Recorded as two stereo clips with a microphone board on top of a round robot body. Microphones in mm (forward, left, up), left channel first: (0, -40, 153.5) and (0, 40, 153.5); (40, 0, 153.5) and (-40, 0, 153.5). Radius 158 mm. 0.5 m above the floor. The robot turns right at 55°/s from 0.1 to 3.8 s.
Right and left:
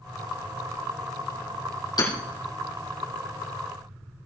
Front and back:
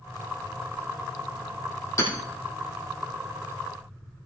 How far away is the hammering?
About 6 m.